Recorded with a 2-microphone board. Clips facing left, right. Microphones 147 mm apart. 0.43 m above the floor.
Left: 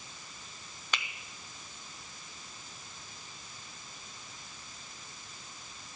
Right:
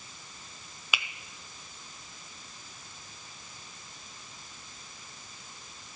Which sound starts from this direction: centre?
A finger snap, at 0.9 s.